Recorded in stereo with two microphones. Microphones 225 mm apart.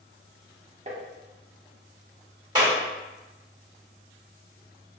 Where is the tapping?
30° right (ahead or behind), 0.7 m.